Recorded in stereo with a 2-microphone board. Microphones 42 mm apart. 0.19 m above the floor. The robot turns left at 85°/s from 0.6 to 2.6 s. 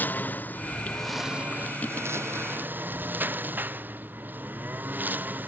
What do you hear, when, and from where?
0.0 s a lawn mower: 45° left (ahead or behind); by 5.5 s 50° right (ahead or behind)